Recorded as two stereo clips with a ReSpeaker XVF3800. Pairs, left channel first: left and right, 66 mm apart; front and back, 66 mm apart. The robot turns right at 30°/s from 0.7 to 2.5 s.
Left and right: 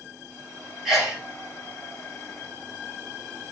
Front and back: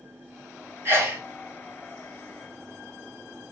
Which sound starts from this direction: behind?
A sneeze, at 0.8 s.